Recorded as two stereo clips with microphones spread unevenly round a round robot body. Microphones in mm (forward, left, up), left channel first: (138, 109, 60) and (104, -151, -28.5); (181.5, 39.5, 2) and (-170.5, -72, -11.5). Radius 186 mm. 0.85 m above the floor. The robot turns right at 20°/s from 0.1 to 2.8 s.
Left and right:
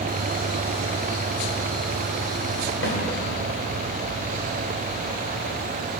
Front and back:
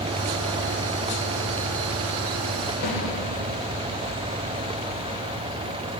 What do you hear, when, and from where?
2.8 s a snare drum: 30° left, 2 m